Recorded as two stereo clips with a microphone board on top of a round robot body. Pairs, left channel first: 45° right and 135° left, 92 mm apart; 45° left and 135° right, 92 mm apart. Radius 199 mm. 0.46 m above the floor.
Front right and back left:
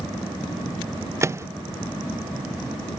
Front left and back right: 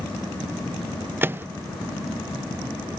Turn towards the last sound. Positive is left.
turn(degrees=170)